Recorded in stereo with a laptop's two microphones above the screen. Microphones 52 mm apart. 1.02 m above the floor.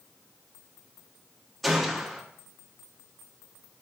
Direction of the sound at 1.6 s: Centre (ahead or behind).